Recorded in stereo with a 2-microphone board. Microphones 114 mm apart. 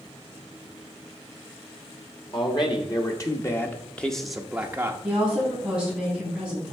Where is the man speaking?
45° left (ahead or behind), 1.3 m; by 4.9 s 20° right (ahead or behind), 1.0 m.